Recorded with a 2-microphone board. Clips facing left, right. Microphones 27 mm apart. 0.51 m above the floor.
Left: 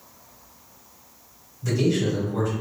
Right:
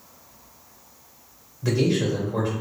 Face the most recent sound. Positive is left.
turn(degrees=-45)  # may be behind; listen again after turning